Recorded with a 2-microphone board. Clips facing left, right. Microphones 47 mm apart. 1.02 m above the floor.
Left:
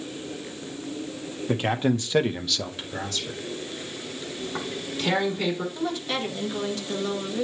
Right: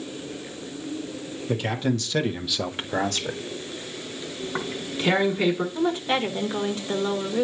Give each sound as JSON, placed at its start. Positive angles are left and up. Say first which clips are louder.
{"t": 1.5, "sound": "a man speaking", "louder": "left 2 dB", "side_deg": 35, "distance_m": 1.7}
{"t": 4.4, "sound": "tearing paper", "louder": "right 2 dB", "side_deg": -20, "distance_m": 2.0}
{"t": 5.8, "sound": "a woman speaking", "louder": "right 5 dB", "side_deg": -25, "distance_m": 1.5}